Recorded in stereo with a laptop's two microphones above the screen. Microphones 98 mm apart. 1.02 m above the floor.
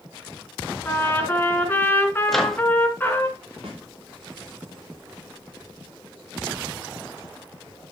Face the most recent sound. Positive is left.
turn(degrees=-80)